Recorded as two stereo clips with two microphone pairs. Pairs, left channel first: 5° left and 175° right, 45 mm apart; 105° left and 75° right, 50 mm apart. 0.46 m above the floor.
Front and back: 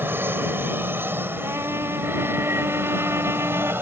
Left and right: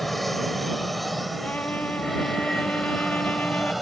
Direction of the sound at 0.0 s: 165° right.